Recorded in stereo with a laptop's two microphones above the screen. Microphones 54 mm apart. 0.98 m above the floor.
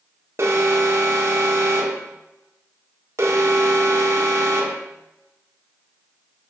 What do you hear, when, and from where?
0.4 s an alarm: 55° right (ahead or behind), 1.3 m